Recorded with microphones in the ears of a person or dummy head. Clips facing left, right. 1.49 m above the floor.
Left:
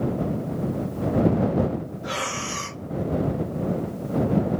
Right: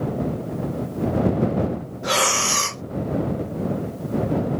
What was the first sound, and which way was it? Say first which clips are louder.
Breathing: right 6 dB; 65° right (ahead or behind).